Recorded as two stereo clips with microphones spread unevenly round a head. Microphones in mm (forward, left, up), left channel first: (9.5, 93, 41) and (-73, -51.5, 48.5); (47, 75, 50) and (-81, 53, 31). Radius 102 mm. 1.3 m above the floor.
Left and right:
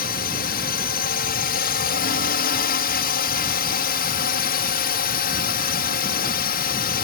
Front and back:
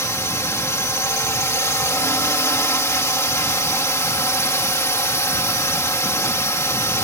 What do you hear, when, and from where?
0.0 s a drone: 80° left